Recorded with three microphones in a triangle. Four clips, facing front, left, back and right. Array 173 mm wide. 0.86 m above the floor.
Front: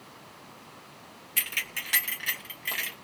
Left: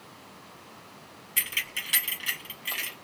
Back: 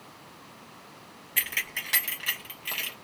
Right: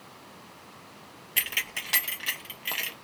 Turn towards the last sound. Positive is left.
turn(degrees=-75)